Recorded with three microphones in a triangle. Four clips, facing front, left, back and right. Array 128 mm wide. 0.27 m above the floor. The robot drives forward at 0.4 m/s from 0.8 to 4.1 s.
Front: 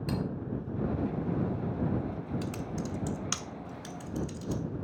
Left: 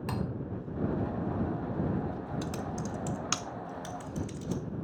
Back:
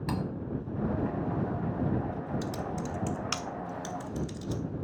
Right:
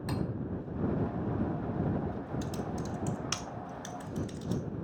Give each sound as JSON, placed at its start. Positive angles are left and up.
{"t": 0.1, "sound": "cutlery clinking", "azimuth_deg": 145, "distance_m": 1.2}
{"t": 2.4, "sound": "typing on a keyboard", "azimuth_deg": 75, "distance_m": 0.5}